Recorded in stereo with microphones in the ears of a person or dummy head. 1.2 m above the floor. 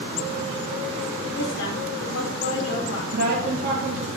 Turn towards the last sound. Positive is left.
turn(degrees=-50)  # may be behind; listen again after turning